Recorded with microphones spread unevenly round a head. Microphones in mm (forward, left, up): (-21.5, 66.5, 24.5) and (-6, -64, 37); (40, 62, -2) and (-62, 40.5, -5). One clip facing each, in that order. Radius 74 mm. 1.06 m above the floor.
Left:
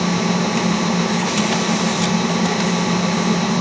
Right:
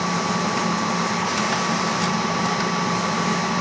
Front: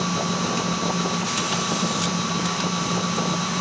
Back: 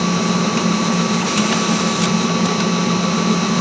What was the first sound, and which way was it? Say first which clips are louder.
A machine running: left 4 dB, back 7 dB; 160° left.